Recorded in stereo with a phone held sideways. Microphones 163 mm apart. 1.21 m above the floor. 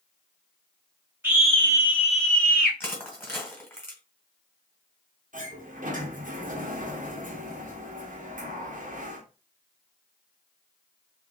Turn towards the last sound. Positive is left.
turn(degrees=-55)  # may be behind; listen again after turning